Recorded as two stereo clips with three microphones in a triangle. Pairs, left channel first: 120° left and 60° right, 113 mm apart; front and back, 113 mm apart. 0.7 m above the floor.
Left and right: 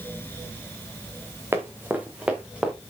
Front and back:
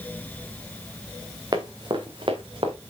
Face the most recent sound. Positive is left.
turn(degrees=-145)